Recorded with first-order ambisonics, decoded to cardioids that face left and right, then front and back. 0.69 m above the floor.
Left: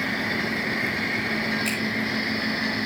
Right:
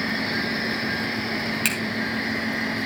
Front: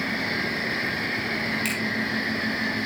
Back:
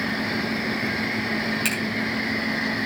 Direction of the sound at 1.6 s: 105° right.